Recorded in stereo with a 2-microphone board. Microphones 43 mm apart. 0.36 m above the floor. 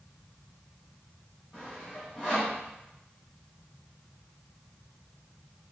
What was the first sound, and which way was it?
Sawing, 20° left (ahead or behind).